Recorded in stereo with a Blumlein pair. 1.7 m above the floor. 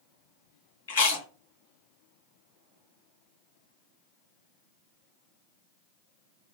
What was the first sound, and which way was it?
Chewing, 60° left.